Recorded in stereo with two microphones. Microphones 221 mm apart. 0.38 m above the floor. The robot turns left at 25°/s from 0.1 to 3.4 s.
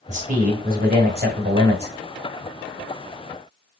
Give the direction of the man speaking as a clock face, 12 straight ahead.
1 o'clock.